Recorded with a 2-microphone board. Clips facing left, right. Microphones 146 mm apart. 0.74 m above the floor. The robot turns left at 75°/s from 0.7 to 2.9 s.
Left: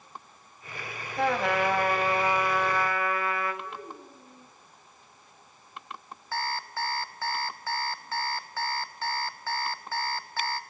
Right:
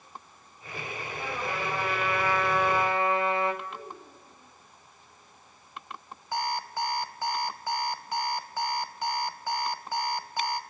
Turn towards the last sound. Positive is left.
turn(degrees=-15)  # may be behind; listen again after turning